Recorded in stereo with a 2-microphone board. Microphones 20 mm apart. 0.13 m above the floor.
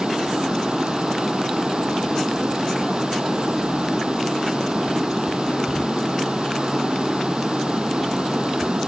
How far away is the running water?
About 2.5 m.